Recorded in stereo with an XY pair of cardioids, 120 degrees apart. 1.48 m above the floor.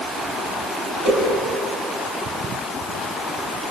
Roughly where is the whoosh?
Right.